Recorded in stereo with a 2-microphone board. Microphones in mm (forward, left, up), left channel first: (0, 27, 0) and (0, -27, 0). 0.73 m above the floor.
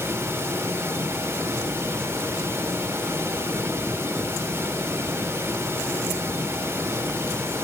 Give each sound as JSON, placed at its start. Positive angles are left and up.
{"t": 0.0, "sound": "running water", "side_deg": -45, "distance_m": 4.0}